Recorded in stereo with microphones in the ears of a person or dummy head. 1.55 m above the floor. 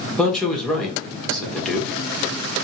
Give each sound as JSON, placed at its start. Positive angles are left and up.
{"t": 0.2, "sound": "a man speaking", "side_deg": 0, "distance_m": 1.0}